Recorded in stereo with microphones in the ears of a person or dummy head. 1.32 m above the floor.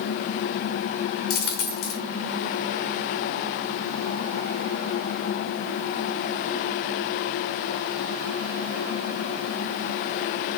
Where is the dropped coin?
55° left (ahead or behind), 2.0 m.